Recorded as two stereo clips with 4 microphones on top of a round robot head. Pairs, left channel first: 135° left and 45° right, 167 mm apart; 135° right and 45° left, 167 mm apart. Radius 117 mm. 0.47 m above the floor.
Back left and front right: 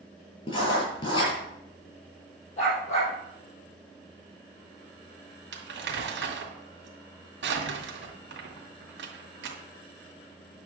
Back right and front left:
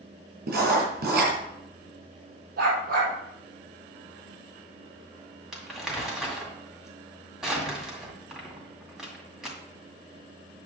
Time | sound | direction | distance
0.5 | writing | 75° left | 5 m
2.6 | a dog barking | 80° left | 5 m
5.5 | crumpling | 40° right | 2 m